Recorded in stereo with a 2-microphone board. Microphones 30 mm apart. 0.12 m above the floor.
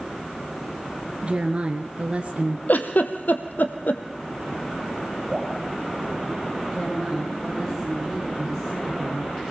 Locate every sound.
1.2 s a woman speaking: 40° right (ahead or behind), 1.6 m
2.7 s a giggle: 75° left (ahead or behind), 1.7 m
5.3 s dripping: 20° right (ahead or behind), 5.5 m
6.7 s a woman speaking: 5° left (ahead or behind), 8.5 m